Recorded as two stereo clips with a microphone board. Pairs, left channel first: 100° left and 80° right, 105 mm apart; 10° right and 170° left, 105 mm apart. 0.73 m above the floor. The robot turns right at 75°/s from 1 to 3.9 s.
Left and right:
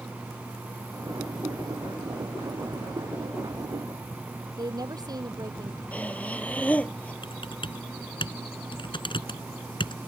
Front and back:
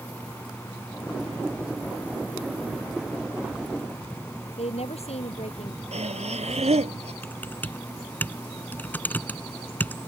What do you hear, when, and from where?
4.6 s a woman speaking: 25° right
5.9 s breathing: straight behind
7.2 s typing on a keyboard: 65° left